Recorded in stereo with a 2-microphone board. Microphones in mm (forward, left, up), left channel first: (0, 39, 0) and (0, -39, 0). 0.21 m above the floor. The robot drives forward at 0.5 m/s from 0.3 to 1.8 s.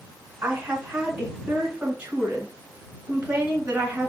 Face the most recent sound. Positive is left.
turn(degrees=-15)  # may be behind; listen again after turning